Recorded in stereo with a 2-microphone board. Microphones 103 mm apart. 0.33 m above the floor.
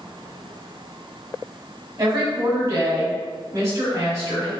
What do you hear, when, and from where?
2.0 s a woman speaking: 30° right (ahead or behind), 1.3 m